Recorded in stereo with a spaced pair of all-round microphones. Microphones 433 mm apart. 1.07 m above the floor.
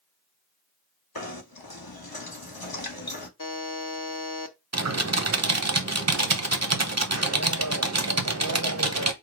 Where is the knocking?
55° left (ahead or behind), 1.2 m.